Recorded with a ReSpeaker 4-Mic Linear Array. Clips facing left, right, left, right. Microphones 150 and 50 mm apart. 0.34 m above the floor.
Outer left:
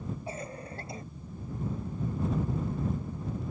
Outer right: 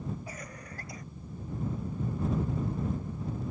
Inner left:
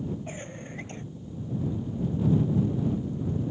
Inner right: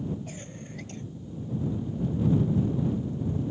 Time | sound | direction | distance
0.3 | a cough | 30° left (ahead or behind) | ?